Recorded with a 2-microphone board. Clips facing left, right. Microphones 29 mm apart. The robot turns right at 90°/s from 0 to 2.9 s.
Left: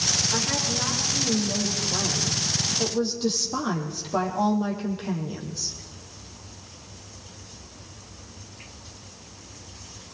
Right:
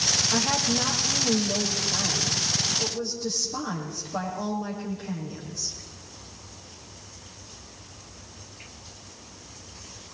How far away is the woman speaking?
About 6 m.